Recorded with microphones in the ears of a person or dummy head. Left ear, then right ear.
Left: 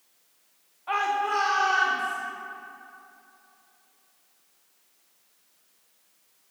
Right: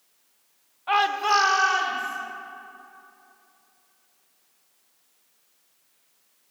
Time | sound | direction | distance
0.9 | a shout | 15° right (ahead or behind) | 0.6 m